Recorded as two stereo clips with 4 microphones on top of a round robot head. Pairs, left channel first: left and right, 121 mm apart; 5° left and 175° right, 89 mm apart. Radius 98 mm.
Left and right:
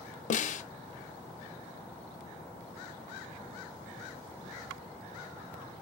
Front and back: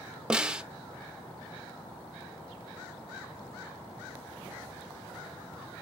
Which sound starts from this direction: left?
A snare drum, at 0.3 s.